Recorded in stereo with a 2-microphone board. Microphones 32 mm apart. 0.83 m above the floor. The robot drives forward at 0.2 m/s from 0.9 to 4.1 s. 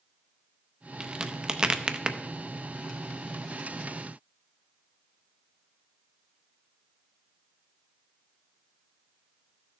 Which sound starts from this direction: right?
A crack, at 1.0 s.